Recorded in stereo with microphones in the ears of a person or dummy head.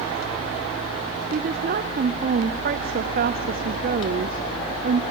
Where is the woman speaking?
45° right (ahead or behind), 0.7 m.